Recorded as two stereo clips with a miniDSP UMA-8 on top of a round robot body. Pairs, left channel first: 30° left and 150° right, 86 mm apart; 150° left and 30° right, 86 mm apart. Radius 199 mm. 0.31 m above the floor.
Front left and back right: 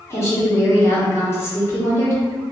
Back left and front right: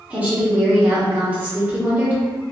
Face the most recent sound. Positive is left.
turn(degrees=25)